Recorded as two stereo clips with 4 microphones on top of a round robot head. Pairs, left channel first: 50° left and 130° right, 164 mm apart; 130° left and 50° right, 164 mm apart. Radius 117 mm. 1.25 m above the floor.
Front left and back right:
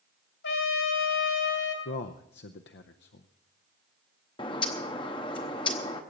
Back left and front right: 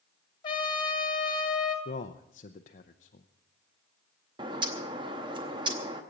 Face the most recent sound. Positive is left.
turn(degrees=0)